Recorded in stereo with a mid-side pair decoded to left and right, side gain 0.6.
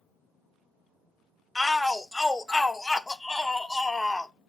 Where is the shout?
10° left, 0.6 m.